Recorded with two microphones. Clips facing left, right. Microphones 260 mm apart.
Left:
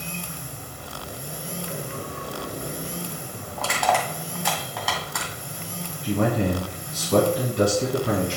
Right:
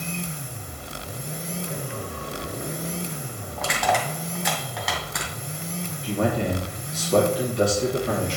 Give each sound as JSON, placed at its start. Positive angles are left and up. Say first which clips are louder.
{"t": 3.6, "sound": "crushing", "louder": "even", "side_deg": 0, "distance_m": 2.5}
{"t": 6.0, "sound": "a man speaking", "louder": "left 2 dB", "side_deg": 55, "distance_m": 2.5}